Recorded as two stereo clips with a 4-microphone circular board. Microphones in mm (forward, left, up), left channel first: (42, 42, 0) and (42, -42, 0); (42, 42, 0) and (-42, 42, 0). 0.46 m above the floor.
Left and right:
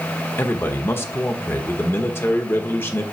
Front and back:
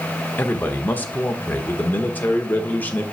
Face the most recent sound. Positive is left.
turn(degrees=50)